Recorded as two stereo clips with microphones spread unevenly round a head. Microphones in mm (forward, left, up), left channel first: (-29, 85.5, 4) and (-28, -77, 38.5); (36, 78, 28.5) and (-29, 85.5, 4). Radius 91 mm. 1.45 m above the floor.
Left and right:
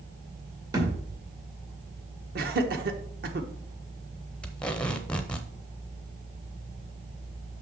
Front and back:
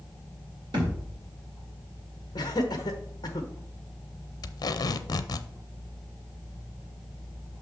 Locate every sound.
0.7 s a thud: 150° right, 2.5 m
2.4 s laughter: 50° right, 1.0 m
4.4 s tape being pulled: 5° left, 0.6 m